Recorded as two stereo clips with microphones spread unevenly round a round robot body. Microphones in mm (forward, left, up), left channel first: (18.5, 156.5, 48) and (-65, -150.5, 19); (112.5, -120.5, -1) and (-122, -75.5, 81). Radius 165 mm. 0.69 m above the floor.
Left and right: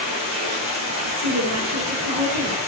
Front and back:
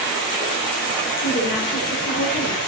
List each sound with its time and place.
0.0 s running water: 60° right, 10 m
1.2 s a woman speaking: 75° right, 10 m